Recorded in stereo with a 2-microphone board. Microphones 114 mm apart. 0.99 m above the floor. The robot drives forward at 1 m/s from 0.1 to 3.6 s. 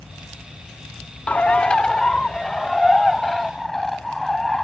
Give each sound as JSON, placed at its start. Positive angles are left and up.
{"t": 1.3, "sound": "a bird", "side_deg": 15}